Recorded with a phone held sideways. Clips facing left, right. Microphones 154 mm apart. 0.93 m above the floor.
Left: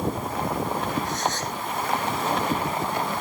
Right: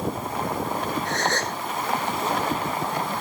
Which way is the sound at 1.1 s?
70° right (ahead or behind).